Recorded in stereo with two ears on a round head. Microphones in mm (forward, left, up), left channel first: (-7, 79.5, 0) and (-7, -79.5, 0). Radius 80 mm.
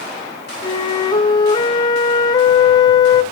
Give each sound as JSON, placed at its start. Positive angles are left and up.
{"t": 0.6, "sound": "a flute", "side_deg": 25, "distance_m": 0.8}